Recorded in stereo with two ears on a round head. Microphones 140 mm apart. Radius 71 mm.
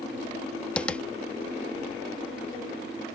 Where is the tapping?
5° left (ahead or behind).